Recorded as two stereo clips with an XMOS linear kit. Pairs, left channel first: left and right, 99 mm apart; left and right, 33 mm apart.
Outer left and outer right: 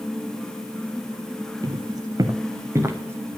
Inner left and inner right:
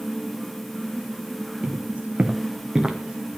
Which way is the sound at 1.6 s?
45° right (ahead or behind).